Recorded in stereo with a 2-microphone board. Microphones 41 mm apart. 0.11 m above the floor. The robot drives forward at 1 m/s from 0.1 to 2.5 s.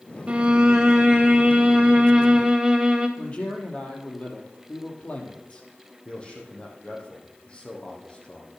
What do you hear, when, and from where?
0.3 s a violin: 30° right (ahead or behind), 0.6 m; by 3.1 s 5° right (ahead or behind), 3 m
3.2 s a man speaking: 35° left (ahead or behind), 3 m
6.0 s a man speaking: 25° left (ahead or behind), 4 m